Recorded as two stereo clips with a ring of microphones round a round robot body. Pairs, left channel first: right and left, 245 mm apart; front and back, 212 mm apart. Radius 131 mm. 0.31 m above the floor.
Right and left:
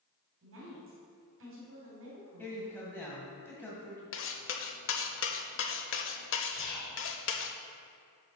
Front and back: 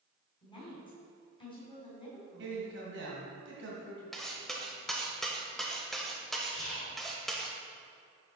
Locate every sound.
0.4 s a woman speaking: 65° left, 2.5 m
2.4 s a man speaking: 170° right, 2 m
4.1 s cutlery clinking: 90° right, 0.7 m
6.5 s whispering: 20° right, 2.5 m